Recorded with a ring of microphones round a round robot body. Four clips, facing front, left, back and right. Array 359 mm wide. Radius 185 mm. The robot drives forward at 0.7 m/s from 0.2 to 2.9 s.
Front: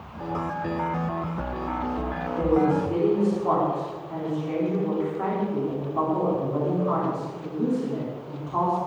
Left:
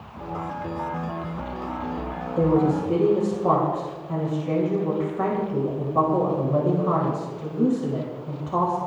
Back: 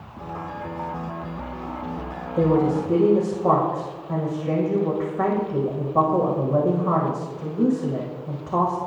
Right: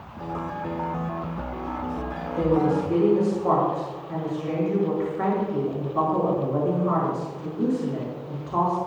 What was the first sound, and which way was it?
A woman speaking, 155° left.